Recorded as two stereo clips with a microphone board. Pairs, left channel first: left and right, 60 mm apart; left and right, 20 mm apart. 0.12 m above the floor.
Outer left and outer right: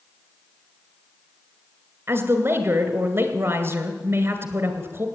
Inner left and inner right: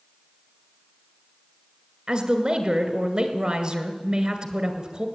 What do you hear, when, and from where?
2.1 s a woman speaking: 40° right (ahead or behind), 1.8 m